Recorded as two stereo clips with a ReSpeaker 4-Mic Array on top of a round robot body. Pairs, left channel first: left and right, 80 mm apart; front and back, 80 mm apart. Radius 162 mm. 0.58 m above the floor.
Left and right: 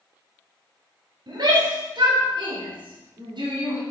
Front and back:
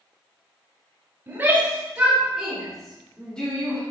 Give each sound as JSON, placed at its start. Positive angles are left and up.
{"t": 1.3, "sound": "a shout", "azimuth_deg": -120, "distance_m": 4.0}